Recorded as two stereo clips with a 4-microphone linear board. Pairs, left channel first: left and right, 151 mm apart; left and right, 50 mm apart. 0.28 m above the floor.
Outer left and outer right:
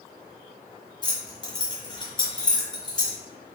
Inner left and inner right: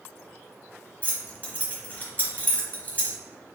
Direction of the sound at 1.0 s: 25° left (ahead or behind).